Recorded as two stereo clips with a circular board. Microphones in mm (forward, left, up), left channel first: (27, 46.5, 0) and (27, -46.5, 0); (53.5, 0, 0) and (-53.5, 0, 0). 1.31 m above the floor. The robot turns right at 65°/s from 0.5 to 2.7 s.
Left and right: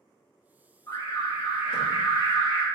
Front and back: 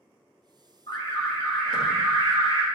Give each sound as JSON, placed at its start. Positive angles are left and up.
{"t": 0.9, "sound": "an alarm", "azimuth_deg": 40, "distance_m": 1.8}